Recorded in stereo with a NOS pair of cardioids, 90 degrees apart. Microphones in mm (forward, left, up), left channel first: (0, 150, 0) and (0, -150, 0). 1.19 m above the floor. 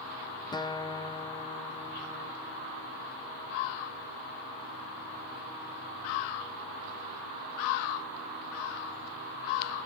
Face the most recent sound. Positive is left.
turn(degrees=15)